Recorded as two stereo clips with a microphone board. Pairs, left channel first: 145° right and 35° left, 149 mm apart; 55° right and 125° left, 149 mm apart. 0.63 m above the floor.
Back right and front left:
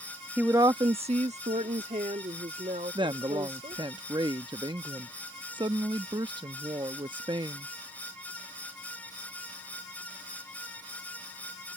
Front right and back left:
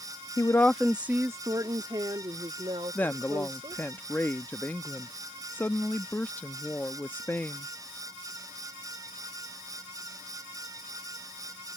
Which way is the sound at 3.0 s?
10° left.